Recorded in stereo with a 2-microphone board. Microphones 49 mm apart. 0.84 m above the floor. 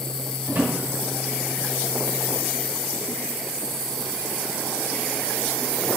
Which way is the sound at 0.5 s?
50° right (ahead or behind).